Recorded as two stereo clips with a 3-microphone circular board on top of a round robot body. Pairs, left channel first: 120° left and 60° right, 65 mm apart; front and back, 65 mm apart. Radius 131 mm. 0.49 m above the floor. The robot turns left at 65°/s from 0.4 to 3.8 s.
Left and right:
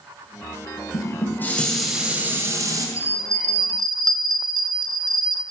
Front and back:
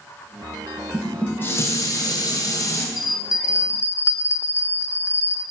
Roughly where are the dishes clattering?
Left.